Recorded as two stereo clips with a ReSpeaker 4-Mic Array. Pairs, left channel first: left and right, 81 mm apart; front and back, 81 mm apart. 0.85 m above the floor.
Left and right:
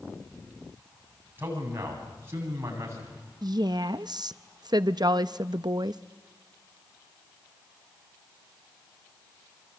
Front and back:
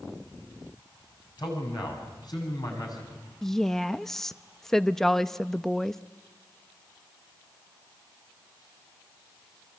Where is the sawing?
I don't hear sawing.